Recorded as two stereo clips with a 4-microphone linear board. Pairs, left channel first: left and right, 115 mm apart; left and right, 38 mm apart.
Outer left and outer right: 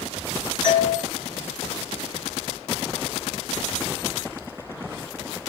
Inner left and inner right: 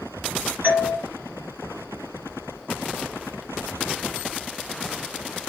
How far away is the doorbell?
About 2.5 m.